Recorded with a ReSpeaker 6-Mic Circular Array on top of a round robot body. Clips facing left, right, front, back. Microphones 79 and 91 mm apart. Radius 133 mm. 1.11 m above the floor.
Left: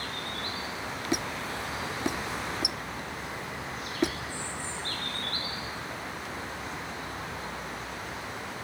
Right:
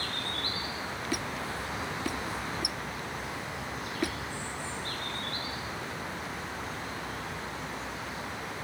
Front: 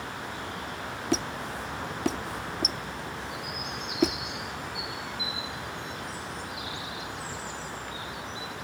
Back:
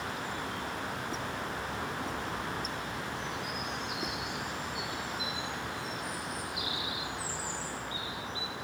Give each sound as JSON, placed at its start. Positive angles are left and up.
{"t": 1.1, "sound": "a squeak", "azimuth_deg": 20}